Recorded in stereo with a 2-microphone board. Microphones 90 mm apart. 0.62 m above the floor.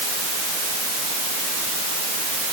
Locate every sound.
Only background noise.